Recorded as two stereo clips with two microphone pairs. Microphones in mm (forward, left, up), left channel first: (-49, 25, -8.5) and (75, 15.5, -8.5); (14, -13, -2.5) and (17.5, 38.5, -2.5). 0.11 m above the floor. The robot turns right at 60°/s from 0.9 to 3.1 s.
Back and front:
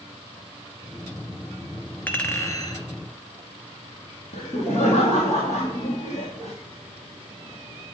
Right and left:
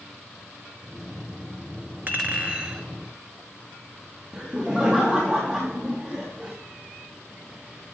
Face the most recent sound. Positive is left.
turn(degrees=175)